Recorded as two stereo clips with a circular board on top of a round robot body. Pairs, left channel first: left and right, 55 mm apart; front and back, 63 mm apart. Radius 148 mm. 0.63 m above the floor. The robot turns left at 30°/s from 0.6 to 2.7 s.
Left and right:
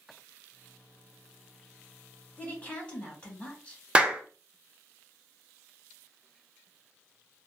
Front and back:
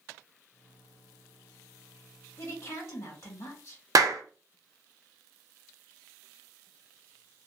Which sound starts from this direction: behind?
A clap, at 4.0 s.